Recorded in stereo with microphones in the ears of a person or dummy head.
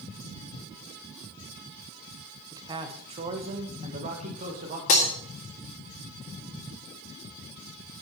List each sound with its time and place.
2.5 s a man speaking: 15° right (ahead or behind), 1.1 m; by 4.8 s 40° right (ahead or behind), 2.5 m
4.9 s breaking glass: 45° left (ahead or behind), 1.6 m